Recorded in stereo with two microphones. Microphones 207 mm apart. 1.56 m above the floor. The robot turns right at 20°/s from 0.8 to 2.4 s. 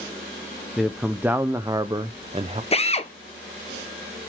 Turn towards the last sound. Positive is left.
turn(degrees=30)  # may be behind; listen again after turning